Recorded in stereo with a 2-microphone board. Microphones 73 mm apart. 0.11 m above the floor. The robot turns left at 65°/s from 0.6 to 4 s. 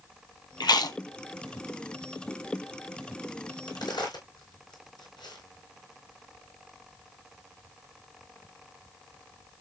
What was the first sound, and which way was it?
Chewing, 75° left (ahead or behind).